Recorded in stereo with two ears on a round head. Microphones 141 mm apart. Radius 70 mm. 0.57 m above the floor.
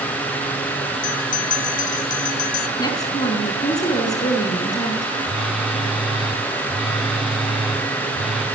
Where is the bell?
55° left (ahead or behind), 2.5 m.